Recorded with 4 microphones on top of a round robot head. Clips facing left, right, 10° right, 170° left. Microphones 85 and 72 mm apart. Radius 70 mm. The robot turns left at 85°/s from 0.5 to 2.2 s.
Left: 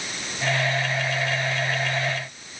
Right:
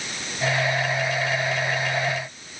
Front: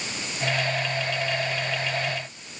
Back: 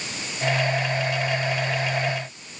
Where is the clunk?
No clunk in this recording.